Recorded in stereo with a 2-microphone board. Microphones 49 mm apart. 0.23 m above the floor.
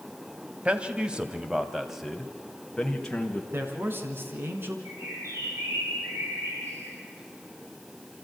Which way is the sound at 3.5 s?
50° right (ahead or behind).